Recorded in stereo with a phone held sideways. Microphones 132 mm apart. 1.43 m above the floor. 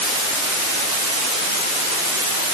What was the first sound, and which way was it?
Only background noise.